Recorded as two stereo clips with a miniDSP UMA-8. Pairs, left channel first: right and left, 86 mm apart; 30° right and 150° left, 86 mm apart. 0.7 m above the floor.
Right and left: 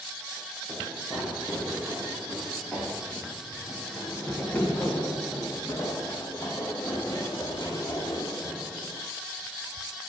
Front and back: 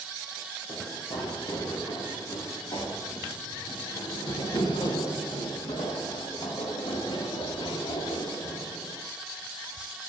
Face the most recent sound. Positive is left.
turn(degrees=-40)